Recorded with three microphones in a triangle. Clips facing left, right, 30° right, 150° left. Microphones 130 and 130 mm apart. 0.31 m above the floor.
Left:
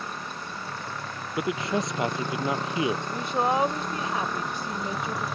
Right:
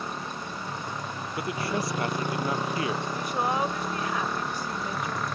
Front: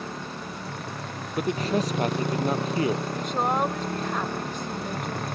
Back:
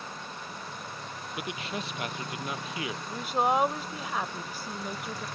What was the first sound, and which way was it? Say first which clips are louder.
A motorcycle: right 2 dB, front 6 dB; 20° right.